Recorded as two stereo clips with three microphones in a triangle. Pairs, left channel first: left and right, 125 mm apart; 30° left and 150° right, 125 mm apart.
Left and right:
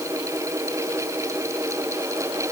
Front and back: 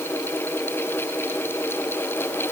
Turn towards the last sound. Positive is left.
No sound to turn to.